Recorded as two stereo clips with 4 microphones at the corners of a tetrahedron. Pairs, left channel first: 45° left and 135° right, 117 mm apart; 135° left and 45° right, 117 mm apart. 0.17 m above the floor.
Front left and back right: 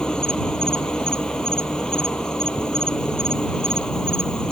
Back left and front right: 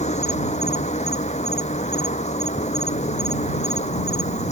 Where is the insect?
130° left.